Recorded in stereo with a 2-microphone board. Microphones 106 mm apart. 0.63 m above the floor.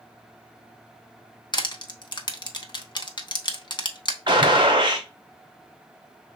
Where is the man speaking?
No man speaking in this recording.